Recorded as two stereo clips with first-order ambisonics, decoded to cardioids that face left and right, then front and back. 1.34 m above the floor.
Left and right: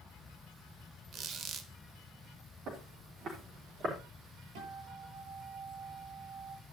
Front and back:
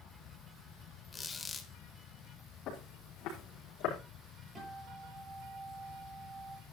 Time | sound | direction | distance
1.1 | a squeak | 65° right | 1.2 m
2.7 | footsteps | 40° right | 4 m
4.5 | a guitar | 110° right | 8.5 m